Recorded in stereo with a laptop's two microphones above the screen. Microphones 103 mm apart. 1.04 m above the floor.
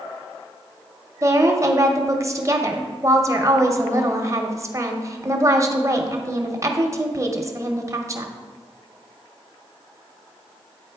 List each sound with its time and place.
1.2 s a woman speaking: 30° right (ahead or behind), 0.6 m